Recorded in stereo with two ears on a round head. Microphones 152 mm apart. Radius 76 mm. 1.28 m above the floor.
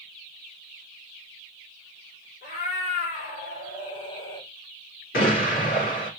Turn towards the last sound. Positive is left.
turn(degrees=55)  # may be behind; listen again after turning